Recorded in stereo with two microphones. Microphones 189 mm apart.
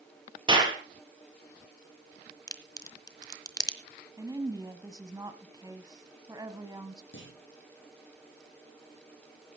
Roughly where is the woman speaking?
Centre.